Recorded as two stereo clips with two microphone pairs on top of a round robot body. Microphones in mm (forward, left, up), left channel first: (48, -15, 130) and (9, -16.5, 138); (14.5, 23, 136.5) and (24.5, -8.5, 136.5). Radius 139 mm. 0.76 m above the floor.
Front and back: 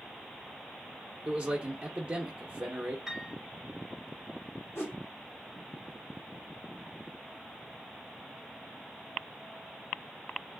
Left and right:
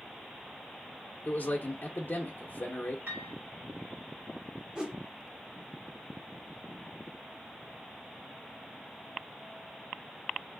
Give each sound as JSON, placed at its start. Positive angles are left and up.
{"t": 1.2, "sound": "a man speaking", "azimuth_deg": 125, "distance_m": 0.7}
{"t": 3.1, "sound": "a piano", "azimuth_deg": -100, "distance_m": 0.5}
{"t": 4.8, "sound": "a whoosh", "azimuth_deg": -5, "distance_m": 1.0}